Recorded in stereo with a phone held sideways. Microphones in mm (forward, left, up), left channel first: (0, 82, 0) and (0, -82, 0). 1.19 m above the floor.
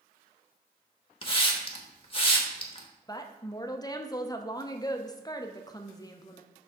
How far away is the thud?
No thud in this recording.